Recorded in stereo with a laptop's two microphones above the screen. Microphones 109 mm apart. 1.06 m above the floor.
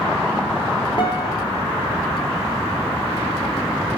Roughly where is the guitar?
Left.